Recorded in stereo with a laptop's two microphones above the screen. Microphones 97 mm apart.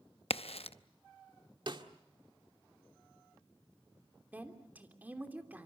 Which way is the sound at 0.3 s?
75° left (ahead or behind).